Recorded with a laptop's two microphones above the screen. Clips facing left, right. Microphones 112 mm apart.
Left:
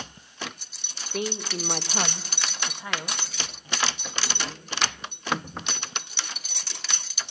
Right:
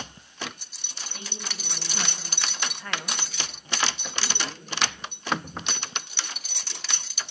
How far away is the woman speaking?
About 1.2 m.